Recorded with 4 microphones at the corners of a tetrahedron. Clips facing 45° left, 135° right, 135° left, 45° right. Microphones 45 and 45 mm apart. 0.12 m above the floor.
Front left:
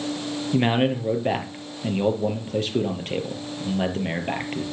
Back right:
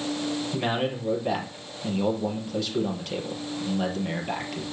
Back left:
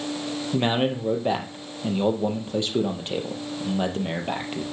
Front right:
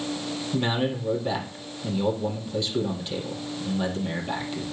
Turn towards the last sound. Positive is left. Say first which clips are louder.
# front left 9 dB, back left 3 dB
turn(degrees=90)